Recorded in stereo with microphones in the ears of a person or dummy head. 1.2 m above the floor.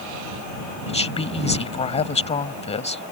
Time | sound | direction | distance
0.9 | a woman speaking | 30° left (ahead or behind) | ?